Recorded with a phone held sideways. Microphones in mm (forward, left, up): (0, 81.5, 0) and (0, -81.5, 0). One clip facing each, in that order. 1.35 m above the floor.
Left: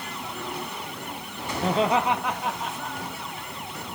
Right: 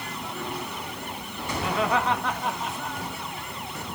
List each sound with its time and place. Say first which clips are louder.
1.6 s laughter: left 3 dB; 40° left (ahead or behind), 0.7 m; by 3.3 s 5° right (ahead or behind), 3 m